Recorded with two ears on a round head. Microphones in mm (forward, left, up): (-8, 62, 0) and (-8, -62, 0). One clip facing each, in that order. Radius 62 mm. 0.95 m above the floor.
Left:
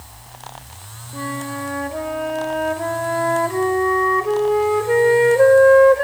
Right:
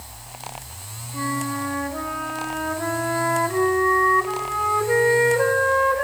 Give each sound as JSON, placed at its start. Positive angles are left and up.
{"t": 1.1, "sound": "a flute", "side_deg": 35, "distance_m": 1.3}